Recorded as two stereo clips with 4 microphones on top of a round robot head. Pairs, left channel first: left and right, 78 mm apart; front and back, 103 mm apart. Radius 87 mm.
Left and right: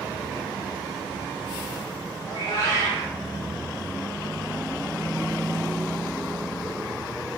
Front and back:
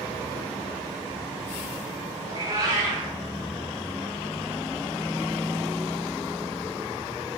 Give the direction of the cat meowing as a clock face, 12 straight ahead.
8 o'clock.